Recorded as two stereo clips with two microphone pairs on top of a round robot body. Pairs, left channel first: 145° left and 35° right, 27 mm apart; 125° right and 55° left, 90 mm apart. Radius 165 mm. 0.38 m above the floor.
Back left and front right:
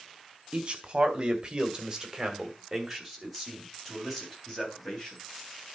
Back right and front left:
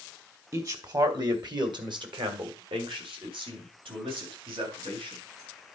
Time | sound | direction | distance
0.5 | a man speaking | 5° left | 2.5 m